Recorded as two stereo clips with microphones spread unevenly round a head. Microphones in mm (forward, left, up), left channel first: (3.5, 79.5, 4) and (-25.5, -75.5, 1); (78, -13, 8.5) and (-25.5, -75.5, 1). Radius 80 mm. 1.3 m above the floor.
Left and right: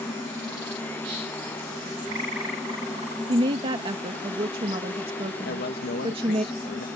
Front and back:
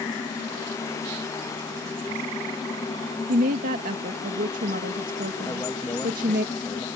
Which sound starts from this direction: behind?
A woman speaking, at 3.3 s.